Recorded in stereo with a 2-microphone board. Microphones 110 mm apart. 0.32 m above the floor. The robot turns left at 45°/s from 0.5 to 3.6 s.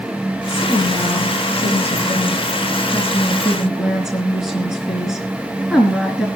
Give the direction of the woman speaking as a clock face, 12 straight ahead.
7 o'clock.